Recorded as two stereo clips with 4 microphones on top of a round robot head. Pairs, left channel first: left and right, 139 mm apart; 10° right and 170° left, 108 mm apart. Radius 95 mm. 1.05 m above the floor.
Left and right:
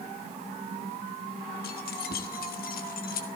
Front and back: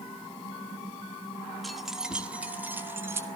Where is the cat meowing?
I don't hear a cat meowing.